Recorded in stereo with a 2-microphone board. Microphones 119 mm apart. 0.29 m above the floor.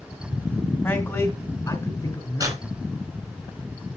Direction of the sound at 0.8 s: 25° left (ahead or behind).